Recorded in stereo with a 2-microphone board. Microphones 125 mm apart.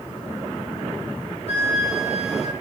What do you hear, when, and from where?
1.5 s a flute: 55° left (ahead or behind), 7.5 m